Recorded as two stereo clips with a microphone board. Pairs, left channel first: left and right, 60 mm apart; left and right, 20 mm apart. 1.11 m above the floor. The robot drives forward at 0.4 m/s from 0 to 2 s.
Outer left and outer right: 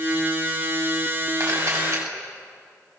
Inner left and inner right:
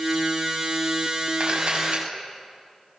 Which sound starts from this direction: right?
A camera shutter, at 1.4 s.